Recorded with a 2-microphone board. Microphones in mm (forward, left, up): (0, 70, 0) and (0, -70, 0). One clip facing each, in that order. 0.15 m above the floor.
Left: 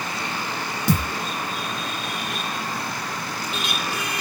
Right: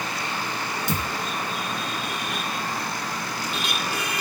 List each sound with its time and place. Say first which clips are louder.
0.9 s a thud: left 8 dB; 50° left (ahead or behind), 0.7 m